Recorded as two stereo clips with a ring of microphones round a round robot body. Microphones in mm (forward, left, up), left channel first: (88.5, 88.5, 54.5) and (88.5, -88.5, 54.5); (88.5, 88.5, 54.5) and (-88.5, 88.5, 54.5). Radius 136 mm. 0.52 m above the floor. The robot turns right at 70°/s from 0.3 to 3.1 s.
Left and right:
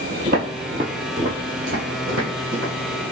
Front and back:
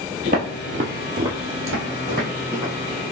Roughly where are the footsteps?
Behind right.